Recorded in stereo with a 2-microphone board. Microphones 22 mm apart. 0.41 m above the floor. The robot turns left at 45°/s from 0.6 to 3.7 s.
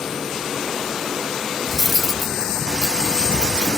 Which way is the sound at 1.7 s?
170° right.